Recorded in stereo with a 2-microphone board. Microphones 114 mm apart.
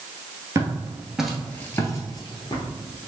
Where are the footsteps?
25° right (ahead or behind), 1.2 m; by 2.7 s 45° left (ahead or behind), 1.4 m.